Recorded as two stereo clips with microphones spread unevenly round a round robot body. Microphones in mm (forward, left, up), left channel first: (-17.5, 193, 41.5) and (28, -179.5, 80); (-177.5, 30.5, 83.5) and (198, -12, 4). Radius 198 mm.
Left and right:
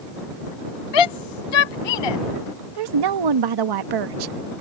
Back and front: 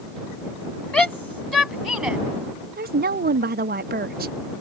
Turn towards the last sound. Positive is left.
turn(degrees=-65)